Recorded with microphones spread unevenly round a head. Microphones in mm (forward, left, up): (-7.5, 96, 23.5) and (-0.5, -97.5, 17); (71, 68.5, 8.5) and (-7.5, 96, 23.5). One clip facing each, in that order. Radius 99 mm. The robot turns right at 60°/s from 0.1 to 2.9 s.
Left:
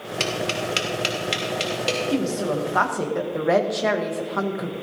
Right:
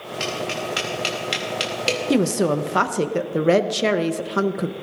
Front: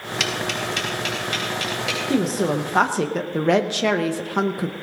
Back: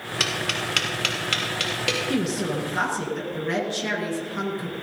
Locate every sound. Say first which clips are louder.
0.2 s tapping: left 1 dB, front 2 dB; 115° left, 2.5 m; by 2.0 s 140° right, 2.5 m
2.1 s a woman speaking: right 6 dB, front 7 dB; 85° right, 0.9 m; by 4.7 s 40° right, 0.9 m